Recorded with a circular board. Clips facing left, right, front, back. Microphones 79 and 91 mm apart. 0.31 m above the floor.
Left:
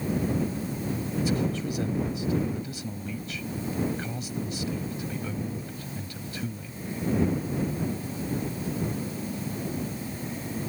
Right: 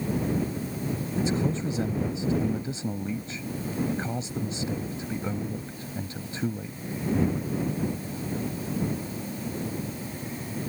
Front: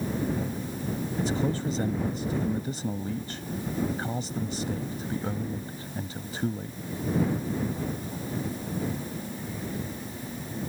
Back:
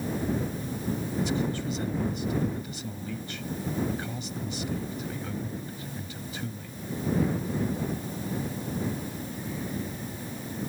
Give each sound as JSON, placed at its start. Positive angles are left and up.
{"t": 1.2, "sound": "a man speaking", "azimuth_deg": -40}